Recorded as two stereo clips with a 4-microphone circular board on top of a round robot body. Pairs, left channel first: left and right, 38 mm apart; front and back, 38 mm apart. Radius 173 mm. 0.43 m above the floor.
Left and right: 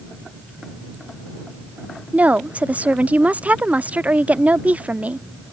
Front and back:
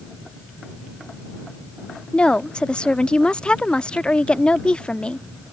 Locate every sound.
2.1 s a woman speaking: 55° right